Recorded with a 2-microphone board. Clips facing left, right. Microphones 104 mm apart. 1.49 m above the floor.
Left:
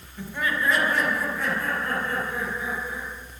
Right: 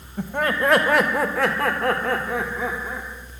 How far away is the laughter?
About 1.5 m.